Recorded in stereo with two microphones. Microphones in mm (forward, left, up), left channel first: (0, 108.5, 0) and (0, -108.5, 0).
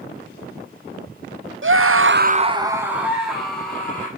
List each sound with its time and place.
1.6 s a scream: 65° right (ahead or behind), 0.7 m; by 4.1 s 5° left (ahead or behind), 2.5 m